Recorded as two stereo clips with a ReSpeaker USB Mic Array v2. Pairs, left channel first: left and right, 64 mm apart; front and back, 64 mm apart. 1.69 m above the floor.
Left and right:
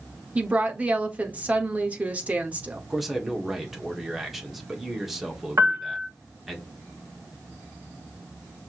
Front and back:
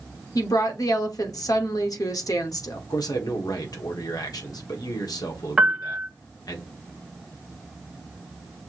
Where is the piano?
110° right, 1.1 m.